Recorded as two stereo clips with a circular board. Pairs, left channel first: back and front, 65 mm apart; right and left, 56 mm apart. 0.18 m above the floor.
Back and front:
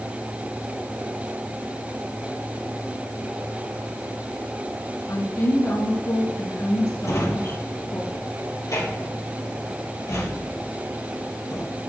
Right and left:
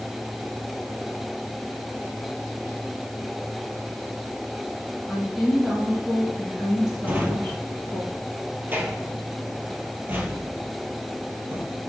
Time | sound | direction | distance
5.1 | a woman speaking | 175° left | 3.5 m
7.0 | a drawer | 145° left | 2.5 m